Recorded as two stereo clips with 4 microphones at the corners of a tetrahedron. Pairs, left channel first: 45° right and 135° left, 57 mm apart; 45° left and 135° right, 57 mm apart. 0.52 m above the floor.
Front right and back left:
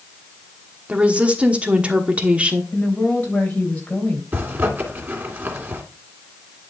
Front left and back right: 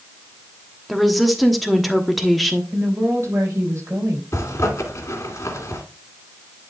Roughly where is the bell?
No bell in this recording.